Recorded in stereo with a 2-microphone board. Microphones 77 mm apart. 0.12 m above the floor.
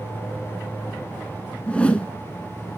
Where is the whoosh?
15° left (ahead or behind), 0.5 m.